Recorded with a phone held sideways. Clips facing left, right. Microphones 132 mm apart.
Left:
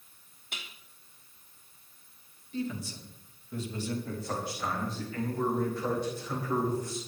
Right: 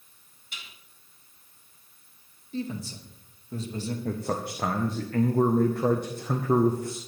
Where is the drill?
I don't hear a drill.